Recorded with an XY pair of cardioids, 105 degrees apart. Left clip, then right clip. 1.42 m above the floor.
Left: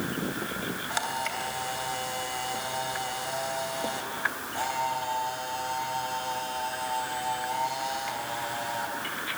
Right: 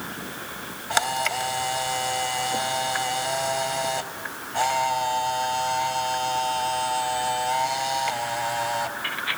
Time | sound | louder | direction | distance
0.9 | a camera shutter | right 9 dB | 50° right | 3 m